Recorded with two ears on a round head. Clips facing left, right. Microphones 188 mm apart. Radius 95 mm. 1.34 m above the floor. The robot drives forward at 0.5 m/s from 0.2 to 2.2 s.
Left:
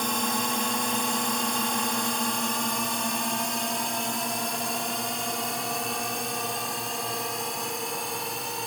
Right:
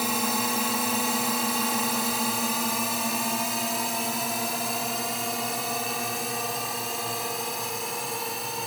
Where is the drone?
5° right (ahead or behind); by 8.7 s centre (ahead or behind).